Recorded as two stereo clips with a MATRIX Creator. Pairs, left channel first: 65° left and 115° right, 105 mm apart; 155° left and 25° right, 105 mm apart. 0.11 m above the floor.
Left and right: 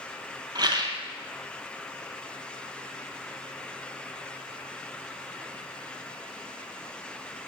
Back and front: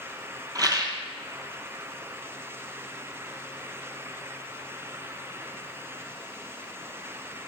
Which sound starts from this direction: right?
A rattle, at 0.6 s.